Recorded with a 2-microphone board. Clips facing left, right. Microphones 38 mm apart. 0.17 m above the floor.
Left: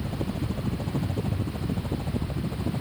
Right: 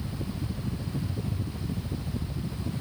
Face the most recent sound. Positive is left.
turn(degrees=75)  # may be behind; listen again after turning